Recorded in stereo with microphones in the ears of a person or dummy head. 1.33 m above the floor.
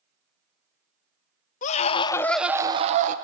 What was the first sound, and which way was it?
A scream, 45° left (ahead or behind).